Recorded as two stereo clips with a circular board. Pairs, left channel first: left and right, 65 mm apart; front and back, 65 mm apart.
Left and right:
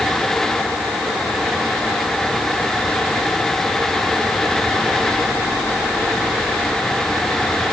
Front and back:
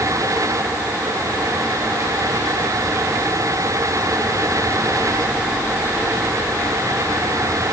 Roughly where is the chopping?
No chopping in this recording.